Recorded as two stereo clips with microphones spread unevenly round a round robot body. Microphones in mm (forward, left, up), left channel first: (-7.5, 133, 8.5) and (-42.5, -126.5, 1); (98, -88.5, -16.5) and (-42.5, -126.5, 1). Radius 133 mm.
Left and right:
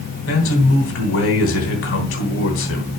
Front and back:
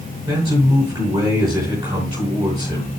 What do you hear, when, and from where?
0.3 s a man speaking: 120° left, 3.5 m